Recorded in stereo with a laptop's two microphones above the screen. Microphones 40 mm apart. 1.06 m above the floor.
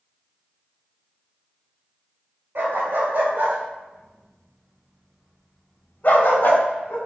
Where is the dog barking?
55° right (ahead or behind), 1.7 m; by 7.0 s 55° left (ahead or behind), 1.2 m.